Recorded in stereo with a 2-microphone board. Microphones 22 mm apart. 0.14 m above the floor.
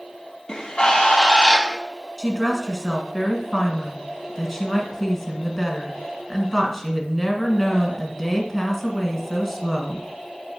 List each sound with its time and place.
0.5 s a bird: 40° left (ahead or behind), 1.0 m
2.2 s a woman speaking: centre (ahead or behind), 1.2 m